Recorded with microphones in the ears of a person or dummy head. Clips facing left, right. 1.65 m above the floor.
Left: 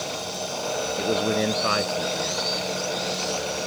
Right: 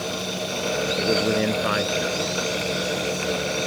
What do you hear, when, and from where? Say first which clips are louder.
1.0 s a man speaking: right 1 dB; 10° right (ahead or behind)